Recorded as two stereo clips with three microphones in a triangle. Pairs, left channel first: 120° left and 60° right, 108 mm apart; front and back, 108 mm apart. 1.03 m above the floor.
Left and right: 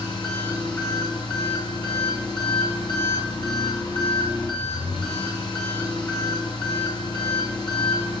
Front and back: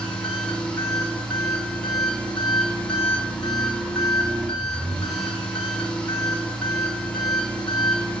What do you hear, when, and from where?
0.0 s an engine running: 80° left, 2 m